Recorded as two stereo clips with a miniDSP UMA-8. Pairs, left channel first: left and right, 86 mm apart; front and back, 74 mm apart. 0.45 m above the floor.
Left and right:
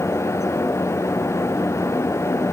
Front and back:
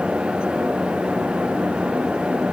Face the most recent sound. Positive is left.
No sound to turn to.